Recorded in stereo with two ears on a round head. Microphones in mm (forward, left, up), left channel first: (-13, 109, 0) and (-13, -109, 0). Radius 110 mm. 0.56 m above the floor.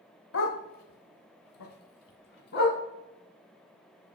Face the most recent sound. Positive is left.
turn(degrees=45)  # may be behind; listen again after turning